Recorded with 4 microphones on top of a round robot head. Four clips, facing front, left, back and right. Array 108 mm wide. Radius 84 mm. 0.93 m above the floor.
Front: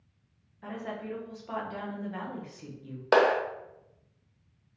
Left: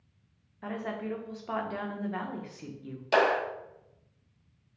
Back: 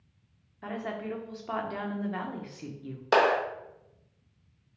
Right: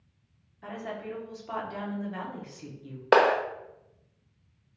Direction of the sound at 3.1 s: 70° right.